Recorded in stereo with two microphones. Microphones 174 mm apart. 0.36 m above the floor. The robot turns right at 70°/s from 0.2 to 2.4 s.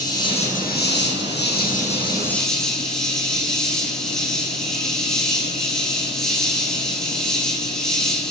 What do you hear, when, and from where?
0.0 s an insect: 25° left, 4.5 m; by 8.3 s 175° left, 4.5 m